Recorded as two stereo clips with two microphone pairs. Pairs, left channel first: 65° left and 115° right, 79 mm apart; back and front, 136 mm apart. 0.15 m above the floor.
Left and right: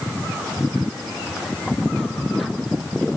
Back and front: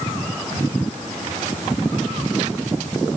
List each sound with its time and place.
Only background noise.